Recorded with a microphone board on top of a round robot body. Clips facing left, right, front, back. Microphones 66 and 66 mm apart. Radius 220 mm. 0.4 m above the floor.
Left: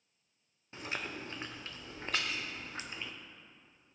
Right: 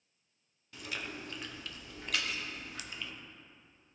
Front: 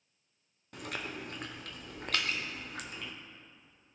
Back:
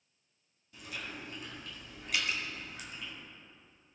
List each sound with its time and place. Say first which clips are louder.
0.7 s chewing: left 2 dB, front 4 dB; 30° left, 0.7 m
2.1 s dripping: even, even; 105° right, 1.1 m